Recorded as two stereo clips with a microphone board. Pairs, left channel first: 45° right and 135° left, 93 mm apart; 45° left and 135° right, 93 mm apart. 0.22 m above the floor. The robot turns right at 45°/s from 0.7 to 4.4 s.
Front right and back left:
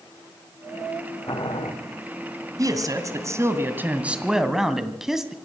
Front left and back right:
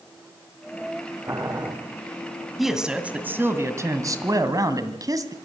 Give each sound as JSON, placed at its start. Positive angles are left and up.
{"t": 1.3, "sound": "boiling", "azimuth_deg": -90, "distance_m": 8.5}
{"t": 2.6, "sound": "a man speaking", "azimuth_deg": 135, "distance_m": 1.8}